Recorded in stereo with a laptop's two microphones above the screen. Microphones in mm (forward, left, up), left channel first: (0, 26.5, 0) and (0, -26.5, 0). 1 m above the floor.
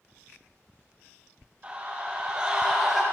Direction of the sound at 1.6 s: 25° right (ahead or behind).